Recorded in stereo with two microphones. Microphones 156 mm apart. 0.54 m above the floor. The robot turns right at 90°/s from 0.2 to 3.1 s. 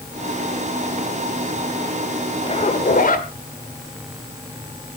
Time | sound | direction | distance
2.5 | a zipper | 40° left | 1.7 m